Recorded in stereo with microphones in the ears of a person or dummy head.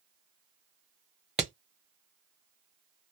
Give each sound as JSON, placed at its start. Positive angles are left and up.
{"t": 1.4, "sound": "hammering", "side_deg": 0, "distance_m": 0.7}